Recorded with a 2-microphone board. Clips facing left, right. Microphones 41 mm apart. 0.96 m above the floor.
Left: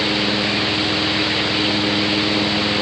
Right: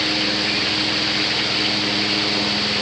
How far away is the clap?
No clap in this recording.